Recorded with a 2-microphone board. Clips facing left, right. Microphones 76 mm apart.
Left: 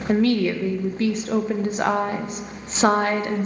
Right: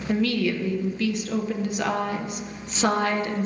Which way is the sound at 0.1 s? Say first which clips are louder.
Left 4 dB; 40° left (ahead or behind).